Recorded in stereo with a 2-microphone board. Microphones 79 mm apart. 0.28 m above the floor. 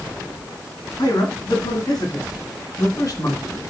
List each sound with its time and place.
1.0 s a man speaking: 60° left (ahead or behind), 3 m; by 3.6 s 45° left (ahead or behind), 2 m